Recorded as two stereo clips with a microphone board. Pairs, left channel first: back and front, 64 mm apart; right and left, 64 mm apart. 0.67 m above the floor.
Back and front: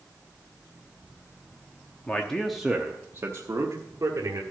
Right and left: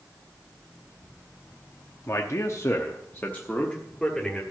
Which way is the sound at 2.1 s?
120° right.